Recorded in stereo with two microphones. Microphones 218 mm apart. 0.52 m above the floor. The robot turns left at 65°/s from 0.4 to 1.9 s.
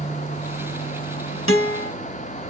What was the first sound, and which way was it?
A guitar, 70° left (ahead or behind).